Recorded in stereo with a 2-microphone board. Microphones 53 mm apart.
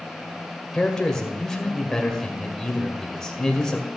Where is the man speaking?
10° left (ahead or behind), 2 m.